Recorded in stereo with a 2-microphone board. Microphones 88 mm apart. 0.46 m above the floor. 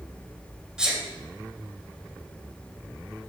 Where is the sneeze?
10° right (ahead or behind), 2.5 m.